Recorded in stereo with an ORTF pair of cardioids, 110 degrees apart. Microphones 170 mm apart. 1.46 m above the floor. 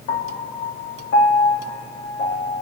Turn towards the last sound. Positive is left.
turn(degrees=65)